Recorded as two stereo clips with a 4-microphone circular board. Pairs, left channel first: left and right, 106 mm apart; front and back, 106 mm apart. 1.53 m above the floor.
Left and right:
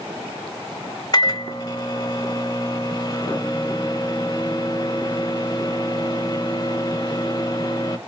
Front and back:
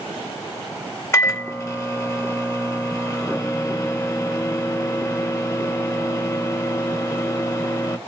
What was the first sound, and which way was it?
A microwave, 55° left.